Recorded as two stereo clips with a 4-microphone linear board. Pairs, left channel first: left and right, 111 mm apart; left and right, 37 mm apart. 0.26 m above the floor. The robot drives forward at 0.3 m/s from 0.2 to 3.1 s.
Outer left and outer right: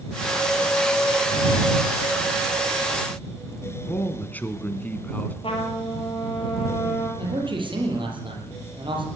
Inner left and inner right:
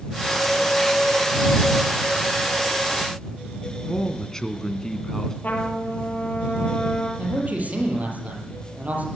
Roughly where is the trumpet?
Left.